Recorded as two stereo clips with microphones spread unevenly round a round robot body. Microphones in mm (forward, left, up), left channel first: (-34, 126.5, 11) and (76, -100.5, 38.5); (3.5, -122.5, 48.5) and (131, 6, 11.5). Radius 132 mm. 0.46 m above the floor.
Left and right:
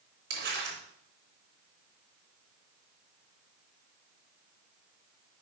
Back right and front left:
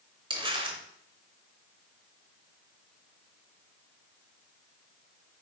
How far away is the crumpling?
About 3.5 m.